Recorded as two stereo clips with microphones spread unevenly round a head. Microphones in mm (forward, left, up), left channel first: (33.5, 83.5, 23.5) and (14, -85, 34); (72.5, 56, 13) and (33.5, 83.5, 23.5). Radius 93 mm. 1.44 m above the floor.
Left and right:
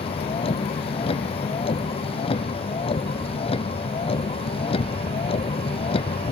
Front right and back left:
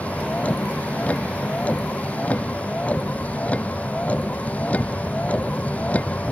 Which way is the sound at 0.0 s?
25° left.